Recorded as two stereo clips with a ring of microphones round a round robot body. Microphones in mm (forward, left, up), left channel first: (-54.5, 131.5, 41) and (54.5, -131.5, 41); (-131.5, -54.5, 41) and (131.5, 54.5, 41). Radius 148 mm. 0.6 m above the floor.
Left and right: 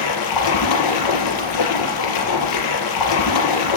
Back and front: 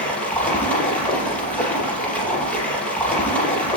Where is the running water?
115° left, 4.5 m.